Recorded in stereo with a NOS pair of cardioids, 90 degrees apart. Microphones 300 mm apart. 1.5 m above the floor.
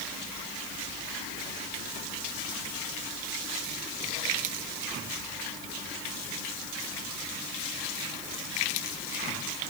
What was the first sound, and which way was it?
Only background noise.